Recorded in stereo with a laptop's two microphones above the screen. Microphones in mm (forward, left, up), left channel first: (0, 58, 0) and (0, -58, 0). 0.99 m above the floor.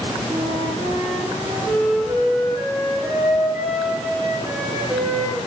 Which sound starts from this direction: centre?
A flute, at 0.3 s.